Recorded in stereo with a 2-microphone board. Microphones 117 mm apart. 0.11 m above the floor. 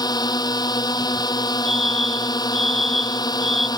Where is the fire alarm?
65° left (ahead or behind).